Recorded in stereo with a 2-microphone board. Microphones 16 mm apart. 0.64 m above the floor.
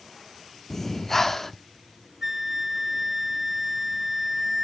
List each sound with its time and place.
0.7 s breathing: 20° left (ahead or behind), 0.5 m
2.2 s a flute: 20° right (ahead or behind), 0.5 m